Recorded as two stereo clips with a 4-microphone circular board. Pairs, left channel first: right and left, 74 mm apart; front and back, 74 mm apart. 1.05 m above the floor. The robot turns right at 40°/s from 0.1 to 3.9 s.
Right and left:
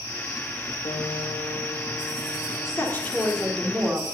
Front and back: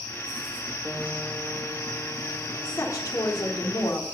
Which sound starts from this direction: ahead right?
A woman speaking, at 2.6 s.